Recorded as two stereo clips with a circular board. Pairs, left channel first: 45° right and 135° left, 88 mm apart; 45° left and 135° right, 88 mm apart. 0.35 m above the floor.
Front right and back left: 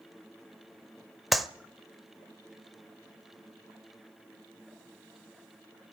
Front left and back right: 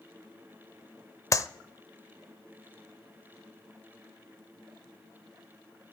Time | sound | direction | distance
1.3 | a clap | 45° left | 0.8 m